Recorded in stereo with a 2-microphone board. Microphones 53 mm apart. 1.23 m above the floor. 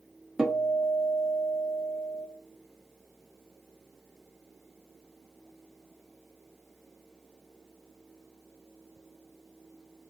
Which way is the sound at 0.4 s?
5° right (ahead or behind).